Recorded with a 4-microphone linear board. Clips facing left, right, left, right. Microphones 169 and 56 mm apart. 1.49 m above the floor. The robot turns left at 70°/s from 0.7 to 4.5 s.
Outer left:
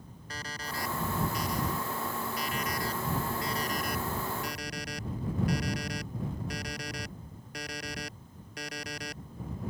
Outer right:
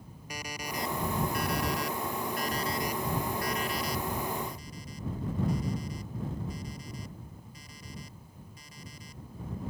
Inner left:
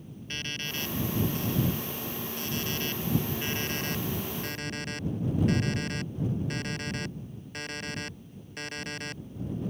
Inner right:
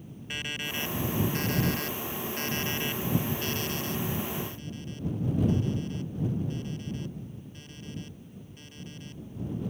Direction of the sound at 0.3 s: 15° right.